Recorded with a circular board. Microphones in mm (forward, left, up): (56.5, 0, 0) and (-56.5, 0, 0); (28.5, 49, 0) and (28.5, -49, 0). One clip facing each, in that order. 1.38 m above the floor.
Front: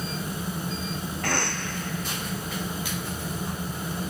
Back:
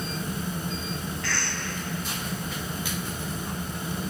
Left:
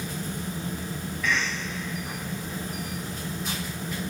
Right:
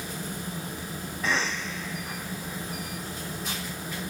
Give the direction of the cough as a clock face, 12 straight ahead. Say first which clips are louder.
Front 4 dB, even; 1 o'clock.